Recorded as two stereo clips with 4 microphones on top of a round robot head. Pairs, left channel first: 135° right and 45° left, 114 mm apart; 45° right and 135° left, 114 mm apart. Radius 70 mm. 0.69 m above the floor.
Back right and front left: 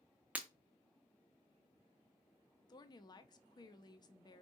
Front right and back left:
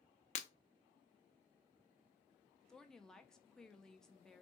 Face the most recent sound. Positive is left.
turn(degrees=-130)